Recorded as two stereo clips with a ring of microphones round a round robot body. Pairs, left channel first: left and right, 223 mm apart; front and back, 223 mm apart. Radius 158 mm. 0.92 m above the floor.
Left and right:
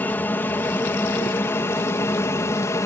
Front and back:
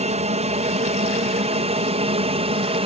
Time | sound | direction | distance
0.0 | an aircraft | 165° left | ?